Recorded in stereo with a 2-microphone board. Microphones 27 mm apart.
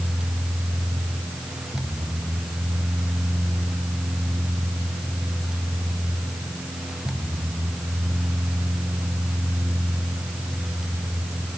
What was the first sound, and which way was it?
Only background noise.